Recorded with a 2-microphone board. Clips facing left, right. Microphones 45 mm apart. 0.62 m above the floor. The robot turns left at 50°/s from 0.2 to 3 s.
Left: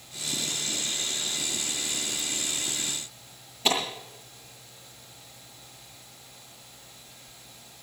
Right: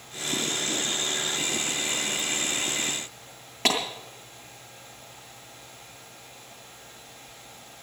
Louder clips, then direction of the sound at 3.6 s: Right 1 dB; 70° right (ahead or behind).